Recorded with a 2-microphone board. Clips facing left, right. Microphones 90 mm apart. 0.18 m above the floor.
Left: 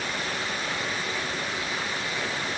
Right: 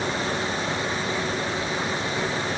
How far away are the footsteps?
I don't hear footsteps.